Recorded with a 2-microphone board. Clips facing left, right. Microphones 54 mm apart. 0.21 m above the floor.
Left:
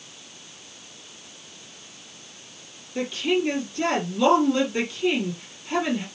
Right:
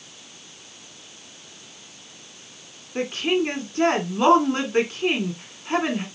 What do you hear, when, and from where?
3.0 s a woman speaking: 50° right (ahead or behind), 1.8 m